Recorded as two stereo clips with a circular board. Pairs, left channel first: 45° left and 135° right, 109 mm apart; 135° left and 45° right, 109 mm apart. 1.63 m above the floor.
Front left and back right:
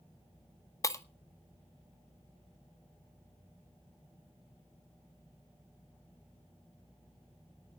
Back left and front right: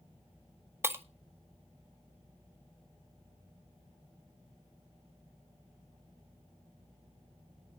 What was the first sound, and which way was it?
Breaking glass, 5° left.